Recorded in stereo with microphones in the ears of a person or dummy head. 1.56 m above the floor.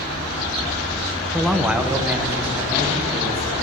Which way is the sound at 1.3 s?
5° left (ahead or behind).